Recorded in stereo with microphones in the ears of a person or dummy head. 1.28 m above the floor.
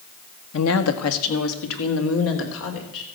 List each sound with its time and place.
0.5 s a woman speaking: 75° left (ahead or behind), 1.3 m; by 3.0 s 70° left (ahead or behind), 4 m